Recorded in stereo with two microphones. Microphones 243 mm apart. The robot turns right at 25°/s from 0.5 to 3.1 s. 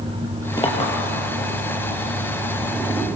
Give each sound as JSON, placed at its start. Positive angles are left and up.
{"t": 0.6, "sound": "a clink", "side_deg": 20, "distance_m": 2.5}